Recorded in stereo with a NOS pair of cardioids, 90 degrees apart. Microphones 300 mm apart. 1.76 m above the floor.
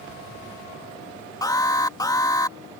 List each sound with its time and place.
1.4 s an alarm: 10° left